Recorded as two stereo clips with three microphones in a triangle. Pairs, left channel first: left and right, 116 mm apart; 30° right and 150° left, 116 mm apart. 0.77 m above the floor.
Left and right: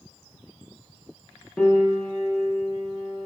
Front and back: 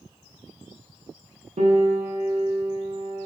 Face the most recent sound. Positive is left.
turn(degrees=170)